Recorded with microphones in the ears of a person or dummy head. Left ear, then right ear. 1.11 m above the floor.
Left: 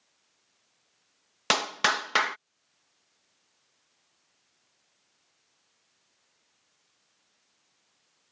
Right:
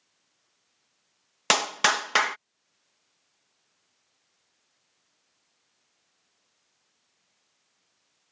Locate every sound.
1.5 s a clap: 20° right (ahead or behind)